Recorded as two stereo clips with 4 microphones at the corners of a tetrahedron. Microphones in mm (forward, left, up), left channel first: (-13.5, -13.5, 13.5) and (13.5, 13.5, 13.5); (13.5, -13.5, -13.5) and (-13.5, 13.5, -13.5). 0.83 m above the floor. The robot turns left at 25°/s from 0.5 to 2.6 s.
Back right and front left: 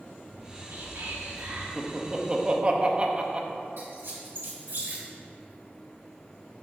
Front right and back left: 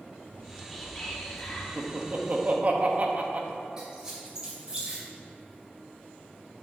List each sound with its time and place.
0.3 s whispering: 40° left, 1.6 m; by 1.7 s 15° left, 1.6 m
1.8 s laughter: 120° left, 1.0 m; by 3.5 s 100° left, 1.0 m
3.8 s a squeak: 60° left, 2.5 m